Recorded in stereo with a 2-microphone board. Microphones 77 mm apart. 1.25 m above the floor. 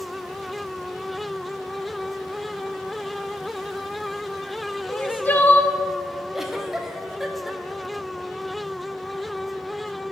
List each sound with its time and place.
4.9 s crying: 25° left (ahead or behind), 0.9 m
6.3 s a giggle: 5° right (ahead or behind), 1.1 m